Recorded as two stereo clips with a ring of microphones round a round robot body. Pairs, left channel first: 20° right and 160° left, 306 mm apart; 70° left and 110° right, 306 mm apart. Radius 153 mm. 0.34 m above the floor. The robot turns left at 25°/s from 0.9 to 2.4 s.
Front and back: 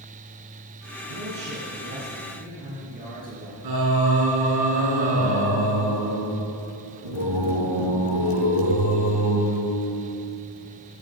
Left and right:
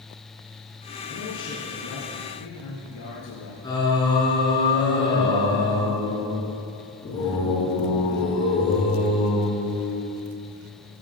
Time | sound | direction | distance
1.1 | a man speaking | 130° left | 5.5 m
3.6 | singing | 145° left | 5 m